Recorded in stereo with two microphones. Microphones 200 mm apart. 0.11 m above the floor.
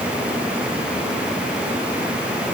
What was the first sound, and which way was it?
Only background noise.